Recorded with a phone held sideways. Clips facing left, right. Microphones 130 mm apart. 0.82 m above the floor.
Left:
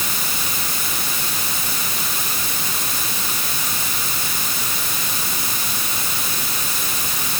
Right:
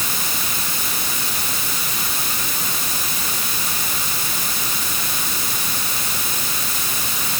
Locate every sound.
Only background noise.